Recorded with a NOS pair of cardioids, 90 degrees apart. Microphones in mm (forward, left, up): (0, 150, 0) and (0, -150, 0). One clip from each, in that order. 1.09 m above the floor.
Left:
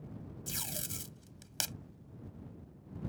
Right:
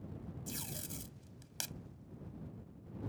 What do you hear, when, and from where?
0.5 s tape being pulled: 45° left